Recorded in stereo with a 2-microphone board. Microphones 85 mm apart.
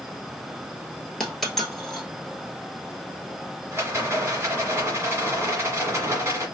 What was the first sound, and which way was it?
A dropped coin, 5° left (ahead or behind).